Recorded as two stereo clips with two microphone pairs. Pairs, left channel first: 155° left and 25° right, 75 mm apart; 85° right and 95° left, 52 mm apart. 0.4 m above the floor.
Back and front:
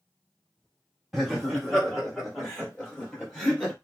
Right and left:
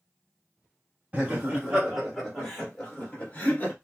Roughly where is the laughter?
Left.